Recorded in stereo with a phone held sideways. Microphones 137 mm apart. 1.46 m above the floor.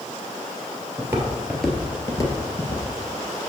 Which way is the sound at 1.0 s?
20° right (ahead or behind).